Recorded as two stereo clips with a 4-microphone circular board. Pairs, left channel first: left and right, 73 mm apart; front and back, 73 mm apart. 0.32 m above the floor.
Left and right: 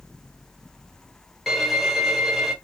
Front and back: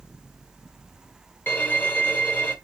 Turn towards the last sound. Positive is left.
turn(degrees=-5)